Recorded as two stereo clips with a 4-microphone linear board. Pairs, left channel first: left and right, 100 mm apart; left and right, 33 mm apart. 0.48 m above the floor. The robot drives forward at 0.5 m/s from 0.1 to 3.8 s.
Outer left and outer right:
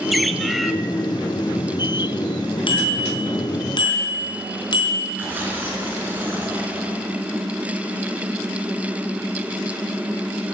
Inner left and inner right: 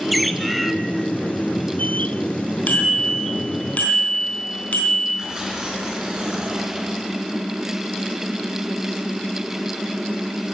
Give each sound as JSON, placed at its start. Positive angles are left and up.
{"t": 0.1, "sound": "a bird", "side_deg": 0, "distance_m": 0.6}
{"t": 2.7, "sound": "a bicycle bell", "side_deg": 60, "distance_m": 3.0}
{"t": 5.2, "sound": "tearing paper", "side_deg": -20, "distance_m": 3.5}